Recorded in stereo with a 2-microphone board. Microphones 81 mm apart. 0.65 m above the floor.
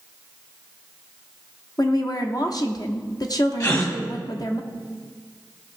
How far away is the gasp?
About 1.5 m.